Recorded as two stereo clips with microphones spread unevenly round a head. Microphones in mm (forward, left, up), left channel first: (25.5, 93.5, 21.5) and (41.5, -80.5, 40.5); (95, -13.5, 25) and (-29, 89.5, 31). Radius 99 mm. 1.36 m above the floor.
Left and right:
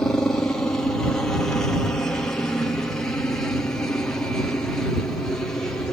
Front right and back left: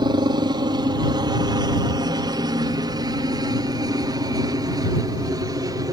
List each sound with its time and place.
0.0 s a helicopter: 165° left; by 5.9 s 160° left